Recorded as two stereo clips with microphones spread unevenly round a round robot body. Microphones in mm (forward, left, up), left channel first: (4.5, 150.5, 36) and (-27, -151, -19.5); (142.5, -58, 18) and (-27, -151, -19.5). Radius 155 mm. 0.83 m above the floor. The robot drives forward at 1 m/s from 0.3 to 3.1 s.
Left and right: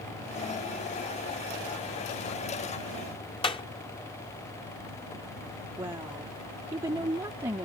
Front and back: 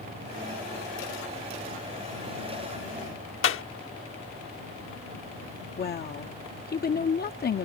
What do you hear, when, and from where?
3.4 s a clap: 5° left
5.8 s a woman speaking: 15° right